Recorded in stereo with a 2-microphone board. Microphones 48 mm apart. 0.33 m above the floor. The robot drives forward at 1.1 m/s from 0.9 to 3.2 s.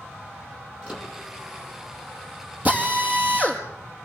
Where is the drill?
30° right (ahead or behind), 4.5 m; by 3.6 s 35° right (ahead or behind), 4 m.